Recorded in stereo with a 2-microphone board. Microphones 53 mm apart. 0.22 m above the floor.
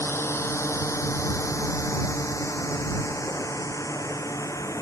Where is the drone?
50° left (ahead or behind); by 4.8 s 80° left.